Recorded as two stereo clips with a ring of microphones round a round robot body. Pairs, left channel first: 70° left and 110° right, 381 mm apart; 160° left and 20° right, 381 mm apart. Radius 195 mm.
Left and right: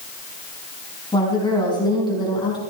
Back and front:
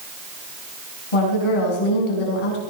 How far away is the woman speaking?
About 5 m.